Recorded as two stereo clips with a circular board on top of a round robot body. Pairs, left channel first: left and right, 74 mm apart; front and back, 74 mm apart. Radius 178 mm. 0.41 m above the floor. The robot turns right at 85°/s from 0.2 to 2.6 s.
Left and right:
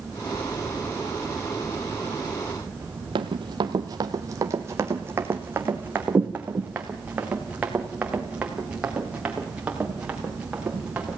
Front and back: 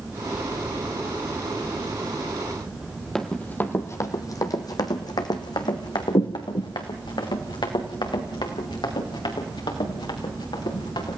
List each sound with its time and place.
3.1 s running footsteps: 85° right, 0.6 m; by 11.2 s 15° right, 4 m